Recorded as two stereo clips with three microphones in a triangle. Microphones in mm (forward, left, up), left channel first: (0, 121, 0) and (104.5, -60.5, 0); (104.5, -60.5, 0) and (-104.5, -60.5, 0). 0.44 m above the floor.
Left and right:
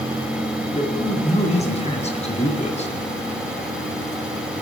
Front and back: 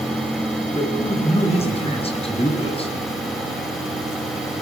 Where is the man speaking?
60° left, 7 m.